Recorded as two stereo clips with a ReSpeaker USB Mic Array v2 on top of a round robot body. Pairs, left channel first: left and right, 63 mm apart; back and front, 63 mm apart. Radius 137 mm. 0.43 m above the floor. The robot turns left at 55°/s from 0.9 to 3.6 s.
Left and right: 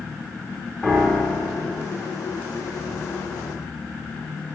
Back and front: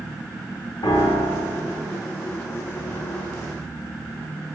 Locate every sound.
0.8 s a piano: straight behind, 1.3 m; by 1.8 s 130° left, 1.3 m